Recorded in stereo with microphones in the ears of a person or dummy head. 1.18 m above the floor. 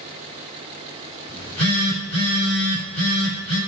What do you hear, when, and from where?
1.3 s a phone buzzing: 30° left (ahead or behind), 6 m